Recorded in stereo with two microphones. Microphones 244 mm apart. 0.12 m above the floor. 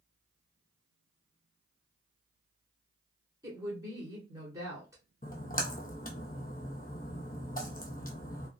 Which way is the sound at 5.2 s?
35° left (ahead or behind).